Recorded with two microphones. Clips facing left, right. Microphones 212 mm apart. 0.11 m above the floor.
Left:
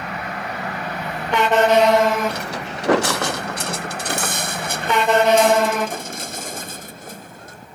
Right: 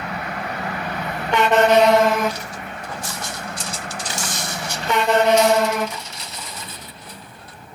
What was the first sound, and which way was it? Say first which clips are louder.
Footsteps: left 4 dB; 65° left (ahead or behind).